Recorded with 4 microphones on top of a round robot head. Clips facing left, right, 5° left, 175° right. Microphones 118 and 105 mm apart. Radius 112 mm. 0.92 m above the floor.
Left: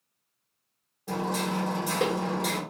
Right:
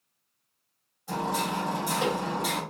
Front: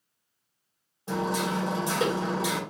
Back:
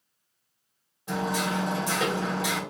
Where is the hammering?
65° left, 3 m.